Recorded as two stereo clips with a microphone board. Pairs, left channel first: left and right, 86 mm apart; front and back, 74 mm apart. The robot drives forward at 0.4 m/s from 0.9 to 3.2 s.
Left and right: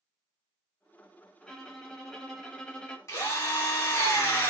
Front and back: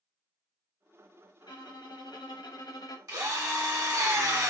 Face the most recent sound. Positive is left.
turn(degrees=145)